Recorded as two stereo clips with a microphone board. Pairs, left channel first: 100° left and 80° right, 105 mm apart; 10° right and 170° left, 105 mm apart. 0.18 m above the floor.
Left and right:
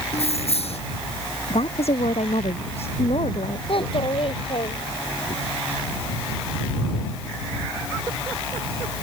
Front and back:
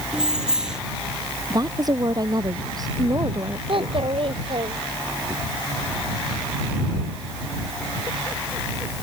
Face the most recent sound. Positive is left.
turn(degrees=135)